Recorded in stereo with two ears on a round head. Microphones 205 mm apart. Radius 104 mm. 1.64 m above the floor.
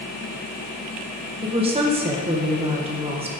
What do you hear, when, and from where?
1.4 s a woman speaking: 25° right (ahead or behind), 1.1 m